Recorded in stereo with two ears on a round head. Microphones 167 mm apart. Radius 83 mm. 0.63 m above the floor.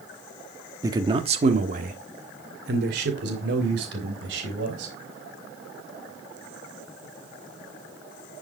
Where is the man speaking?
15° right (ahead or behind), 1.2 m; by 4.9 s 70° right (ahead or behind), 4.5 m.